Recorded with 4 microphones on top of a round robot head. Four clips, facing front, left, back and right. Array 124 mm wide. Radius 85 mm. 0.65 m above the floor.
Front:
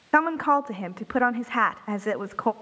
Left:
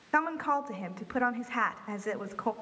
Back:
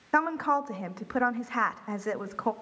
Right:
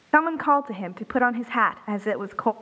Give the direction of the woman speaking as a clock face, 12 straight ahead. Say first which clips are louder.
Right 9 dB, front 5 dB; 2 o'clock.